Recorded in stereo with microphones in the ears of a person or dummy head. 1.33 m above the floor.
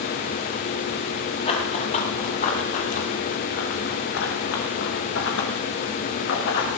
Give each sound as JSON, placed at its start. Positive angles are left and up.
{"t": 1.4, "sound": "running footsteps", "side_deg": 35, "distance_m": 5.5}